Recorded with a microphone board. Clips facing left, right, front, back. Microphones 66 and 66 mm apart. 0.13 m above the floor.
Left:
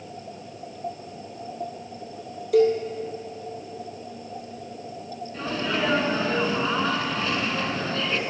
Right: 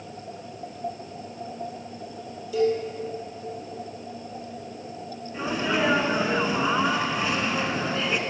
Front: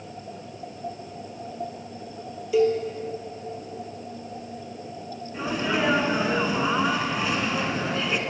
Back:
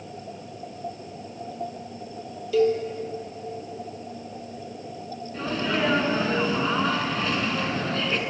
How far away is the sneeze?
About 1.1 m.